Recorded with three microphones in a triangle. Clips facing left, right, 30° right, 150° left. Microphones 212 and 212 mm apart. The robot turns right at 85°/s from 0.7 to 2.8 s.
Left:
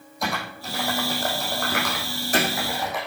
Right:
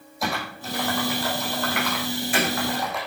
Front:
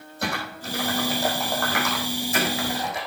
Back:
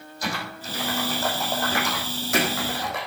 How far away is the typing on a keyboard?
About 4.5 m.